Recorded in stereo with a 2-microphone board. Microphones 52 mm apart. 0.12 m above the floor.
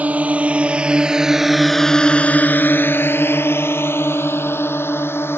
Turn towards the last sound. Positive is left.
turn(degrees=50)  # may be behind; listen again after turning